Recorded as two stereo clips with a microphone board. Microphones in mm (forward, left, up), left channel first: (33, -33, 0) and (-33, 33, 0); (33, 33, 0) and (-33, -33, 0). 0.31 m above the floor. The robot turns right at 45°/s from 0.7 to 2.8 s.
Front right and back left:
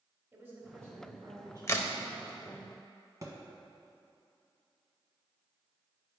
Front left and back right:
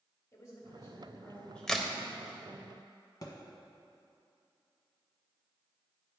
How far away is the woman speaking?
About 1.4 m.